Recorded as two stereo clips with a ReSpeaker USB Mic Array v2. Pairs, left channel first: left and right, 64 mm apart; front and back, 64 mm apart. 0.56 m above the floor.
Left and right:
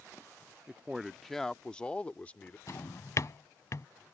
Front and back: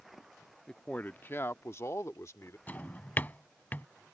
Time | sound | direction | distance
0.7 | a man speaking | 55° right | ?
2.7 | a drawer | 60° left | ?